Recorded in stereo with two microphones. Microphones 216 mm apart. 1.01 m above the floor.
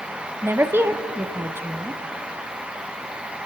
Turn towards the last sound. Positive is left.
turn(degrees=-10)  # may be behind; listen again after turning